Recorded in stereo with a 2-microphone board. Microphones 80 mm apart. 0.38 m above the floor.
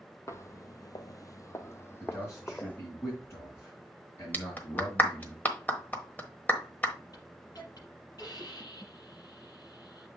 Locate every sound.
0.3 s footsteps: 35° left (ahead or behind), 0.6 m; by 2.8 s 20° left (ahead or behind), 1.1 m
2.0 s a man speaking: 35° left (ahead or behind), 3.5 m
4.3 s a clap: 20° left (ahead or behind), 1.1 m
7.1 s a hiss: 55° left (ahead or behind), 5 m